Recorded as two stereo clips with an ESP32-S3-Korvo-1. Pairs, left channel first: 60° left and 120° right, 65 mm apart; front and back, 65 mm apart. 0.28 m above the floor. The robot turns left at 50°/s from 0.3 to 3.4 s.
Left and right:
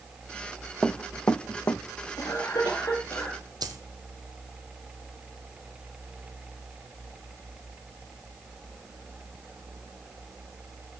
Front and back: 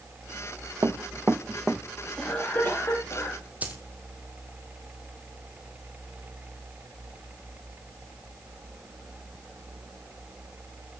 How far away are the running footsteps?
About 0.9 m.